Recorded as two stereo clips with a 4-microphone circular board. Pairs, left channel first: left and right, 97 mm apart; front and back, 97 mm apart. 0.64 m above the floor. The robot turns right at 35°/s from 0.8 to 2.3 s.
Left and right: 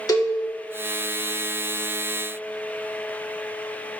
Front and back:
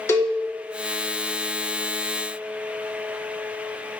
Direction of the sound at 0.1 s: 50° left.